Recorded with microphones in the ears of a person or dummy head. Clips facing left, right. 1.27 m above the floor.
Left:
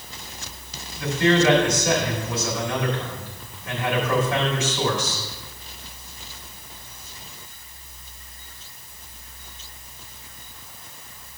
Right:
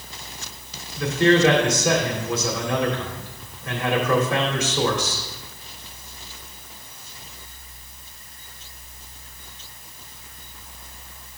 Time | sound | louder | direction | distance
1.0 | a man speaking | right 2 dB | 55° right (ahead or behind) | 3 m